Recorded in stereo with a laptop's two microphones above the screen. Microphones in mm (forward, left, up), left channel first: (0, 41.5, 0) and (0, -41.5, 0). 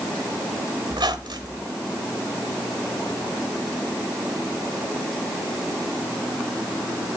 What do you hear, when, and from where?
0.9 s a squeak: 70° right (ahead or behind), 1.5 m